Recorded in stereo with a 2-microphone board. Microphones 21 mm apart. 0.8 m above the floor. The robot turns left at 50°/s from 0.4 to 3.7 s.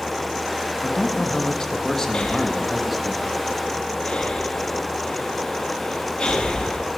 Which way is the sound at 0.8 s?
100° left.